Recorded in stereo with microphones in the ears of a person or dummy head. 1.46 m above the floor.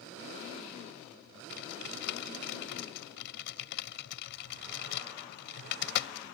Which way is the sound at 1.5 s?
65° left (ahead or behind).